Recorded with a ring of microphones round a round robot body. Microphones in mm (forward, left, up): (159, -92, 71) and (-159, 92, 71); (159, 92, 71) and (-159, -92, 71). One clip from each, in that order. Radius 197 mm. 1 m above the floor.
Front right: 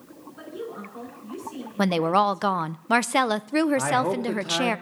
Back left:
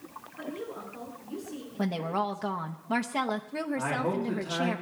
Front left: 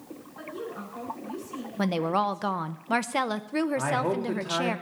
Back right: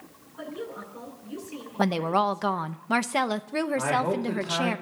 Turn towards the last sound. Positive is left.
turn(degrees=-50)